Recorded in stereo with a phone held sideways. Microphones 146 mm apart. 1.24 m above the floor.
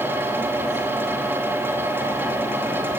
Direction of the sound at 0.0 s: 15° right (ahead or behind).